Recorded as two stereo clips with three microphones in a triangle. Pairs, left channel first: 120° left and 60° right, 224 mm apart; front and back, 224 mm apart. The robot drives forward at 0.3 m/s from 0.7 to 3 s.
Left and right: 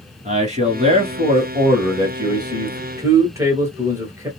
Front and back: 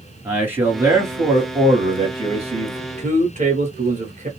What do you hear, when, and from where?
0.2 s a man speaking: 105° right, 1.5 m; by 4.3 s 135° right, 1.8 m